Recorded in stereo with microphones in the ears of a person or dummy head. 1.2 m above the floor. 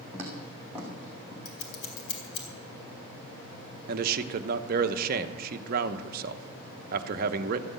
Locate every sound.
0.1 s footsteps: 20° right (ahead or behind), 4.5 m; by 1.4 s 10° right (ahead or behind), 5.5 m
1.4 s scissors: 60° left (ahead or behind), 3.5 m
3.9 s a man speaking: 60° right (ahead or behind), 0.9 m